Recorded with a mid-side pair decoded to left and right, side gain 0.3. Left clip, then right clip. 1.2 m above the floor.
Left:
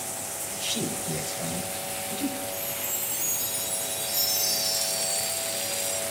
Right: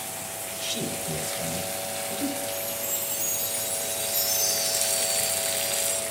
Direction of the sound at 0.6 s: 5° right.